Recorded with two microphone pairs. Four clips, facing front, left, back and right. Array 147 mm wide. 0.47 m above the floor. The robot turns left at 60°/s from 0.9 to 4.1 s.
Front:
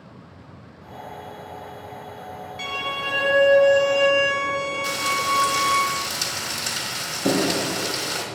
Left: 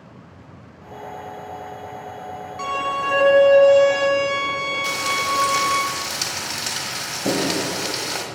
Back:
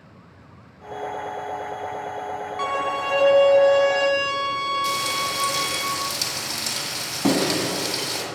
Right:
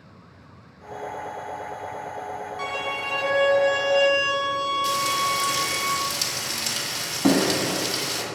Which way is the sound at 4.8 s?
105° left.